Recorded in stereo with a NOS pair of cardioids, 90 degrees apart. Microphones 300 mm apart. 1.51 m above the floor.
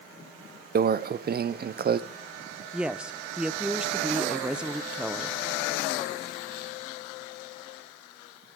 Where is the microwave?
30° right, 0.5 m.